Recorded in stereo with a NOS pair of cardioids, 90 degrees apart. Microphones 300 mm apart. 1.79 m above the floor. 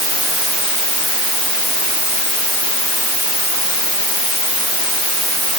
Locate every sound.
Only background noise.